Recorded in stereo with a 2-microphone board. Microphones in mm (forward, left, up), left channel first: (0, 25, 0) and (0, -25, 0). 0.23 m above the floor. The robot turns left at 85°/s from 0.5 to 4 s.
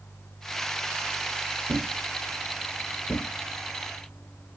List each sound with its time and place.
1.7 s a thud: 50° right (ahead or behind), 0.8 m; by 4.6 s 35° left (ahead or behind), 0.8 m